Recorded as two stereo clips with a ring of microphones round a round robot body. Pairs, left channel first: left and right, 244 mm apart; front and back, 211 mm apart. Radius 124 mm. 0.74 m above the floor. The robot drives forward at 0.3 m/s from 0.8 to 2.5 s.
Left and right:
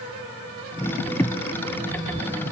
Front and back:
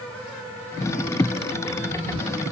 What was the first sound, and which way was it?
Only background noise.